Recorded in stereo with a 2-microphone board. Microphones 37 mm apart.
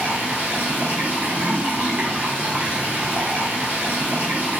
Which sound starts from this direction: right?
Running water, at 0.0 s.